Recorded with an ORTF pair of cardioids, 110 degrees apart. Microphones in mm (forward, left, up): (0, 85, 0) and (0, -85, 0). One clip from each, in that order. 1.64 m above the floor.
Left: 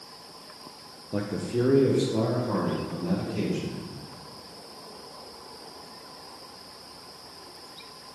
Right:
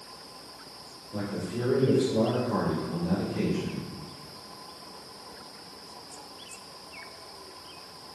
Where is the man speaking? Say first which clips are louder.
Left 5 dB; 55° left, 0.6 m; by 3.8 s 30° left, 2 m.